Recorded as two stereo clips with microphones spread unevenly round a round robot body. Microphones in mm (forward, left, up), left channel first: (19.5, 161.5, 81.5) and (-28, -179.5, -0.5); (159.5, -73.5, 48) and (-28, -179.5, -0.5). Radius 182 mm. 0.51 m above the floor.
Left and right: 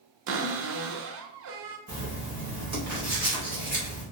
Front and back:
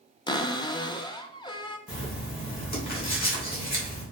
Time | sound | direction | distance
0.3 | a cupboard door | 45° right | 0.5 m
1.9 | writing | 20° right | 1.9 m